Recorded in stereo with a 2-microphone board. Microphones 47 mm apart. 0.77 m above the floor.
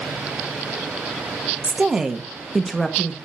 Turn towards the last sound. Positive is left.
turn(degrees=10)  # may be behind; listen again after turning